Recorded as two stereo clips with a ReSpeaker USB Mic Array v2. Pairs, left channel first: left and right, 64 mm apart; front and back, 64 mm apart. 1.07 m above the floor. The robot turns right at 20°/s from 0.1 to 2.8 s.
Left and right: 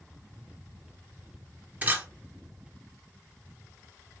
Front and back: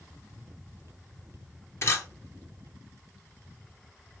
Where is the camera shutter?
35° right, 0.9 m; by 2.0 s 30° right, 0.9 m.